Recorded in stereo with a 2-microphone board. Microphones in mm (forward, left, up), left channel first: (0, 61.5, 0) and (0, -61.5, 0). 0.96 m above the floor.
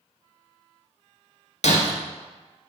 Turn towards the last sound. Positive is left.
turn(degrees=65)  # may be behind; listen again after turning